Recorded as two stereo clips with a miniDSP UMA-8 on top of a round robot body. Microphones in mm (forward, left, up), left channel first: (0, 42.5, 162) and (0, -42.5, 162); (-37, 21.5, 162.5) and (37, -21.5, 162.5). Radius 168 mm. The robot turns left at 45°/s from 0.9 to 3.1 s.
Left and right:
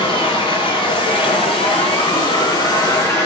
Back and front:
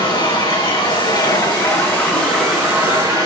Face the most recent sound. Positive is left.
turn(degrees=30)